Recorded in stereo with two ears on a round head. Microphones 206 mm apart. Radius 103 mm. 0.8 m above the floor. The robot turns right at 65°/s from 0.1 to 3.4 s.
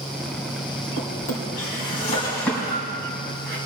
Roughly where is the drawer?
Left.